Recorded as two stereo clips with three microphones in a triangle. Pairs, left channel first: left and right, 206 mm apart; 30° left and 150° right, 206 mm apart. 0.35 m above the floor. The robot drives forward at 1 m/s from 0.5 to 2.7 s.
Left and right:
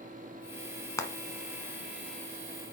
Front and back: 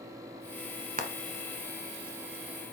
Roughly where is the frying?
Behind.